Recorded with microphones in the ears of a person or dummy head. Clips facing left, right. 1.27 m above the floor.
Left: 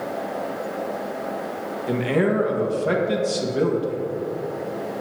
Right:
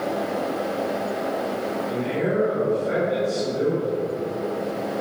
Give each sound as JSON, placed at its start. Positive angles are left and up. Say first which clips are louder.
{"t": 1.9, "sound": "a man speaking", "louder": "left 6 dB", "side_deg": 80, "distance_m": 1.4}